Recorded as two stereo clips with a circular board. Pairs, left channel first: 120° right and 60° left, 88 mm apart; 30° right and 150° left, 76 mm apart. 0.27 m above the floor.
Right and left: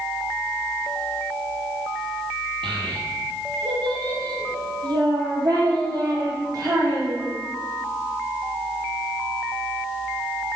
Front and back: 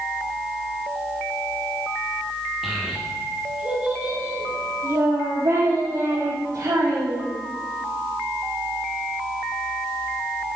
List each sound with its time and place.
2.6 s a child speaking: 60° left, 4.5 m; by 7.3 s 110° left, 6.5 m